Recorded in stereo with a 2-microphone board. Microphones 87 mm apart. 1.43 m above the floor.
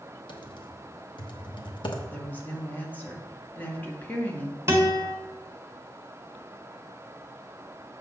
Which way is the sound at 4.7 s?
30° right (ahead or behind).